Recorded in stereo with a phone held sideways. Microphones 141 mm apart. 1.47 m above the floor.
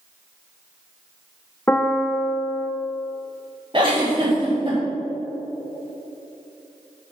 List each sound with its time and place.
1.7 s a piano: 15° left (ahead or behind), 0.6 m
3.7 s a giggle: 35° right (ahead or behind), 2.5 m